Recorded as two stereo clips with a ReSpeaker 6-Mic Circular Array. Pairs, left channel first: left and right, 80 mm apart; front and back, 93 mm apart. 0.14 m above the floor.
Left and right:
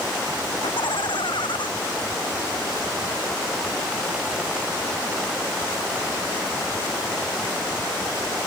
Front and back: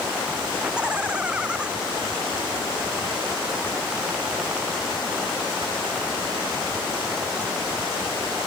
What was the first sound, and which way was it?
Laughter, 100° left.